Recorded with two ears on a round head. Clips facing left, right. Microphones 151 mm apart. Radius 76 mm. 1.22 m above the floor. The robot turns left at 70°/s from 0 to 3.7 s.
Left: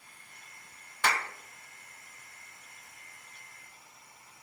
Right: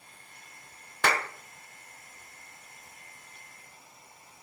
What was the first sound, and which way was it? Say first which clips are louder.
A clap: right 3 dB; 45° right (ahead or behind).